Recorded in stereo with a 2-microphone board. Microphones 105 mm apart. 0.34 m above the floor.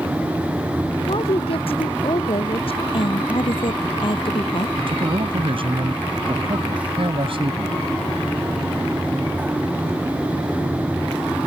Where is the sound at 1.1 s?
60° left (ahead or behind).